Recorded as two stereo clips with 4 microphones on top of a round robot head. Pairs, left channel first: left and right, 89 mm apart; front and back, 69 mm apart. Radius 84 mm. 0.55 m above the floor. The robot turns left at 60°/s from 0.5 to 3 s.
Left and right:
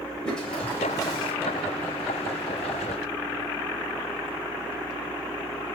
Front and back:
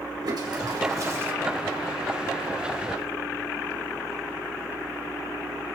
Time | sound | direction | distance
0.2 | a toilet flushing | 170° left | 3 m